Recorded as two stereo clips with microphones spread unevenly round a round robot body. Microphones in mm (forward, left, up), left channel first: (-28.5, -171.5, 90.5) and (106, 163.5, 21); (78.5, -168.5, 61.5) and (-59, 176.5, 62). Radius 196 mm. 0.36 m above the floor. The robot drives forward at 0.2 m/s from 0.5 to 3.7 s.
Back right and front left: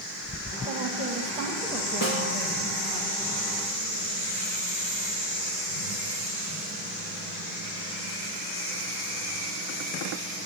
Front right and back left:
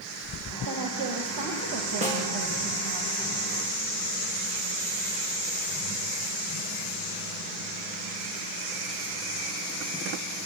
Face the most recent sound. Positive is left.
turn(degrees=-175)